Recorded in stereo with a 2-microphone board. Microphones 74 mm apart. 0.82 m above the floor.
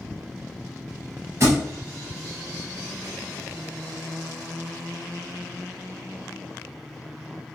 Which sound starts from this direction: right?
A thud, at 1.4 s.